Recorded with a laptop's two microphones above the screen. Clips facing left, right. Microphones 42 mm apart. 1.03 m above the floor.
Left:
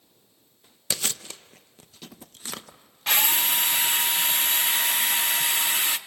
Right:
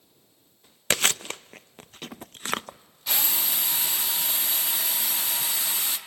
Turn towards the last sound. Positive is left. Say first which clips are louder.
# left 6 dB
turn(degrees=55)  # may be behind; listen again after turning